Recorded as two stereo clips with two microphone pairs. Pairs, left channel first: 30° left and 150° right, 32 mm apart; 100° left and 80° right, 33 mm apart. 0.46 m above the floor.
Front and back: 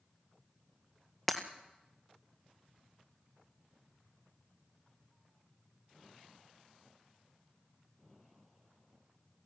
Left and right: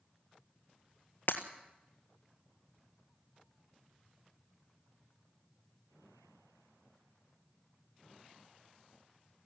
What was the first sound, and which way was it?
Breaking glass, 110° left.